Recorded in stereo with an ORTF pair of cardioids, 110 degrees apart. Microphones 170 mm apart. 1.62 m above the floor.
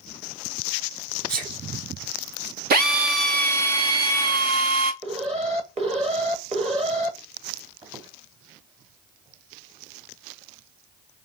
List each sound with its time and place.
1.3 s a sneeze: 55° right, 2.5 m
2.7 s a drill: 60° right, 1.2 m
5.0 s an alarm: 40° right, 1.8 m
7.8 s a squeak: 35° right, 2.5 m